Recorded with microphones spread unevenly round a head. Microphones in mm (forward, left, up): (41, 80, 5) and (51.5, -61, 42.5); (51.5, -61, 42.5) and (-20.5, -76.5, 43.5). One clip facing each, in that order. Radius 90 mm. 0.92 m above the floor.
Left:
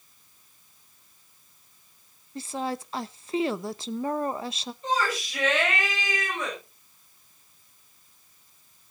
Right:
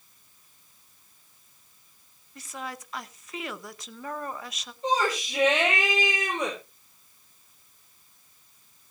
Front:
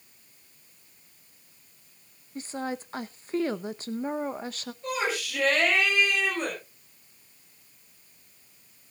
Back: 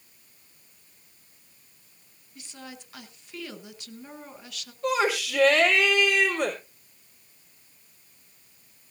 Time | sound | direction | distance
2.4 | a woman speaking | 60° left | 0.8 m
4.8 | a shout | 155° right | 4 m